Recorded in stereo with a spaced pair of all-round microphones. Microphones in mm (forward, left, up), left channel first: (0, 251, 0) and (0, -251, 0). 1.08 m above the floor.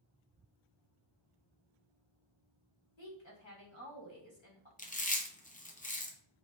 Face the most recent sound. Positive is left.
turn(degrees=15)  # may be behind; listen again after turning